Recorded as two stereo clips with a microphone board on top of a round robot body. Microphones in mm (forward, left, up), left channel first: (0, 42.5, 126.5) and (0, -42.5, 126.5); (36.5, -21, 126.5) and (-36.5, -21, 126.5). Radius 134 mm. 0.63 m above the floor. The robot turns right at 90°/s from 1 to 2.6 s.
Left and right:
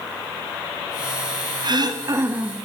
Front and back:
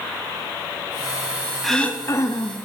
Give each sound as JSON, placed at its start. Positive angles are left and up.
{"t": 1.6, "sound": "throat clearing", "azimuth_deg": -90, "distance_m": 1.6}